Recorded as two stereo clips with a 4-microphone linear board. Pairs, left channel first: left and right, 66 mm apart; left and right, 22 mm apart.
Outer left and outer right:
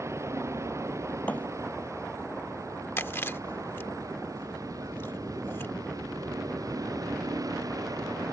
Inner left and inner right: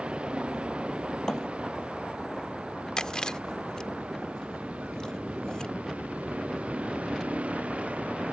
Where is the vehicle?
50° right (ahead or behind); by 8.3 s 65° right (ahead or behind).